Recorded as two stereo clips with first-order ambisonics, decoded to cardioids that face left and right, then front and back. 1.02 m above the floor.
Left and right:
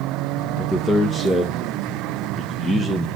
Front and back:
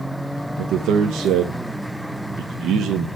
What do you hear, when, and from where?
0.6 s a man speaking: 165° left, 0.7 m